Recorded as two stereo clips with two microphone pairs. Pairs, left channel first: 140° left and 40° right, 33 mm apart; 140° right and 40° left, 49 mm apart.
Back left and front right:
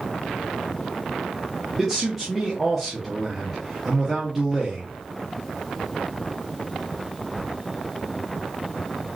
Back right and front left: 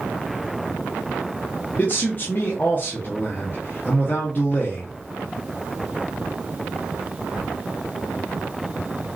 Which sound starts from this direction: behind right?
A man speaking, at 1.8 s.